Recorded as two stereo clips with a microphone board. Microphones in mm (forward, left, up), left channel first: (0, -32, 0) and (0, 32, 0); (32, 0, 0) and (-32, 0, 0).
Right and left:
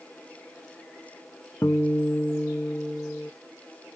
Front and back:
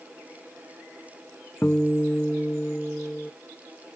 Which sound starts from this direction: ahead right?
A guitar, at 1.6 s.